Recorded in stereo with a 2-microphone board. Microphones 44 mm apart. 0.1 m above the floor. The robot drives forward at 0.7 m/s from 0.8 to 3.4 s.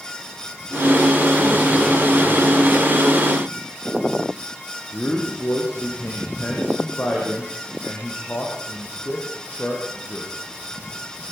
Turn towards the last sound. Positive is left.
turn(degrees=40)  # may be behind; listen again after turning